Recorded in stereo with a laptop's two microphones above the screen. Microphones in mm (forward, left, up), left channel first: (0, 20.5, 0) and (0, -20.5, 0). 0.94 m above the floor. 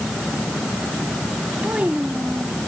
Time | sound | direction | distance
1.6 | a child speaking | 35° right (ahead or behind) | ?